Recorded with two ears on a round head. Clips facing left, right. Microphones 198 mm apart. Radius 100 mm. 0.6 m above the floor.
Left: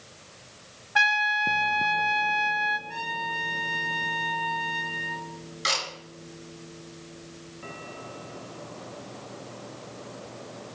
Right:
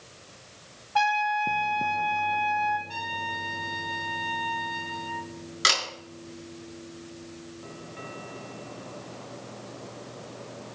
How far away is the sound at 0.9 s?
About 1.3 m.